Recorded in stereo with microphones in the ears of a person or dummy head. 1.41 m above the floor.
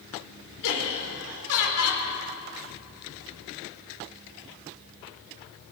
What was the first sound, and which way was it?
Laughter, 80° left.